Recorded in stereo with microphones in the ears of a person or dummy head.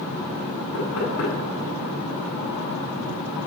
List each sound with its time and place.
0.7 s knocking: 85° left, 9 m